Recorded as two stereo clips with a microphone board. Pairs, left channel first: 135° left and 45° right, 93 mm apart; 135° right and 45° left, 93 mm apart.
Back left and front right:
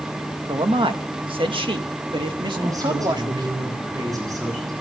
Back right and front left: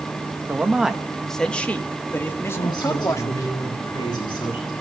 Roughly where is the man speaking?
Ahead right.